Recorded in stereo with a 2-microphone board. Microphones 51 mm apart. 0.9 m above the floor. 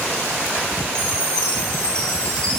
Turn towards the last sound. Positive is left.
turn(degrees=15)  # may be behind; listen again after turning